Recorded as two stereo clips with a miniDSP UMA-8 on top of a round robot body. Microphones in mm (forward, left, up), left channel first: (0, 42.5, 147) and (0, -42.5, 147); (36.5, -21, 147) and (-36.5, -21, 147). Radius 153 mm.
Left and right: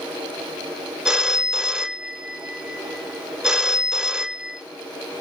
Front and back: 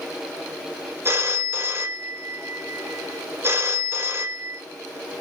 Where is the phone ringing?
170° right, 0.8 m.